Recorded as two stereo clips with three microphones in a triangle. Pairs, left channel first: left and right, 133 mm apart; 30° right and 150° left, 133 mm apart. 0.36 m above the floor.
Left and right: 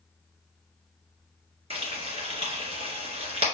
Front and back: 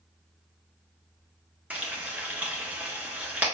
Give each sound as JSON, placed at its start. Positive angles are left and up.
{"t": 1.7, "sound": "frying", "azimuth_deg": -130, "distance_m": 1.6}